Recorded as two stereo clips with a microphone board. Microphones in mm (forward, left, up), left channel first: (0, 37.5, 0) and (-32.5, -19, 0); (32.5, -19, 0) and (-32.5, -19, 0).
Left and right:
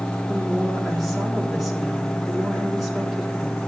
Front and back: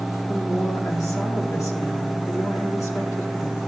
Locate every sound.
0.3 s a woman speaking: 35° right, 3 m